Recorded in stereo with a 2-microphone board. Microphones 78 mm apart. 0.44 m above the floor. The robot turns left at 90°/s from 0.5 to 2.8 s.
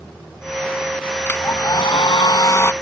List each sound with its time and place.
1.3 s a hair dryer: 160° left; by 2.7 s 30° left